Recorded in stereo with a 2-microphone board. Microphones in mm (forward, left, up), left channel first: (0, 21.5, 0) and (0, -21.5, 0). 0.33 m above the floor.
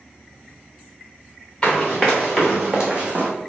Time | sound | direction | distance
1.6 | running footsteps | 10° left (ahead or behind) | 1.3 m